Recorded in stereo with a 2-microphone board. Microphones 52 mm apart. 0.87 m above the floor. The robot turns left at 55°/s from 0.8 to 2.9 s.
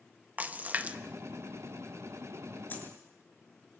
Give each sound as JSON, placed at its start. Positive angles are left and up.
{"t": 0.4, "sound": "a splash", "side_deg": -30, "distance_m": 1.0}
{"t": 2.7, "sound": "a dropped coin", "side_deg": 35, "distance_m": 4.0}